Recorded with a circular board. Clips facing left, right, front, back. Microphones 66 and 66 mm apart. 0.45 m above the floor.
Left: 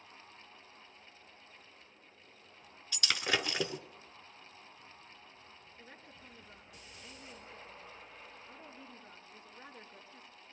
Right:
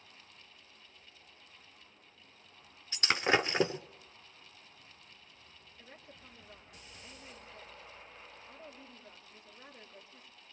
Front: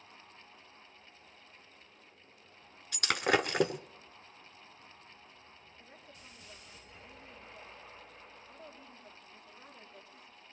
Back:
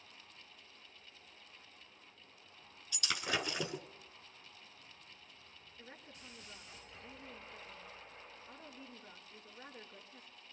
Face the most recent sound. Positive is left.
turn(degrees=145)